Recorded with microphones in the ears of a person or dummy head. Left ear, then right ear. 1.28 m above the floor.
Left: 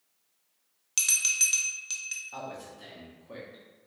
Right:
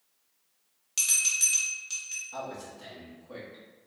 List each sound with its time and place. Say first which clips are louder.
1.0 s a bell: even; 20° left (ahead or behind), 0.6 m
2.3 s a man speaking: right 1 dB; 15° left (ahead or behind), 1.2 m